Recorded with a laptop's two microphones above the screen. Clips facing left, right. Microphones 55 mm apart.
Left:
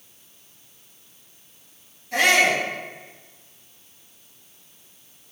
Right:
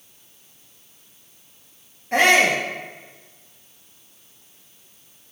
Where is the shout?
45° right (ahead or behind), 1.9 m.